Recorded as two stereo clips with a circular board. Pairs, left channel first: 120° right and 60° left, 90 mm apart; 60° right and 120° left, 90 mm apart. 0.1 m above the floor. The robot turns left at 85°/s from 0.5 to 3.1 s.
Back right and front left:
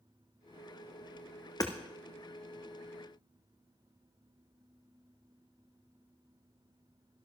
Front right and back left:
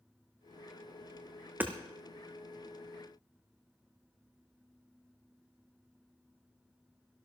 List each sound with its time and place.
1.6 s hammering: 170° right, 1.7 m; by 1.7 s straight behind, 1.7 m